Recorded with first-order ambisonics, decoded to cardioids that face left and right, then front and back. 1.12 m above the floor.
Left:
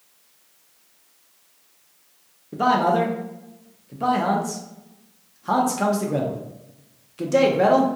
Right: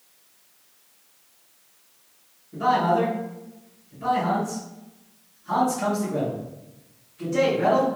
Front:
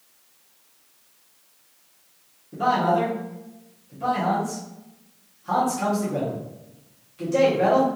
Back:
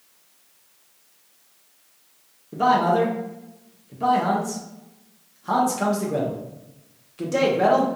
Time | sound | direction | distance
2.5 | a man speaking | 115° left | 0.6 m